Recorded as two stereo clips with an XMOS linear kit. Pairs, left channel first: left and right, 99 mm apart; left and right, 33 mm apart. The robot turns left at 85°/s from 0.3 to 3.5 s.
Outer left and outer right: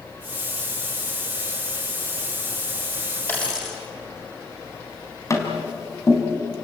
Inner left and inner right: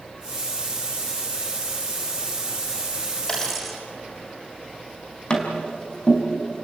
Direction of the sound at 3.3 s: 25° left (ahead or behind).